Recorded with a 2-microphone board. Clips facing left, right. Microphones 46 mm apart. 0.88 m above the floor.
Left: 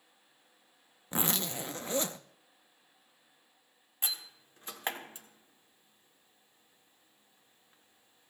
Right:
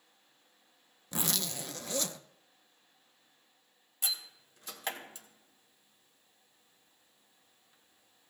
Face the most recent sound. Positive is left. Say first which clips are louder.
# right 1 dB
turn(degrees=30)  # may be behind; listen again after turning